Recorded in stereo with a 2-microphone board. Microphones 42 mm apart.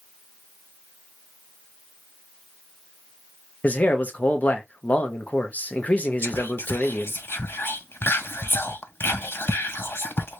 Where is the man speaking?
35° left (ahead or behind), 0.8 m.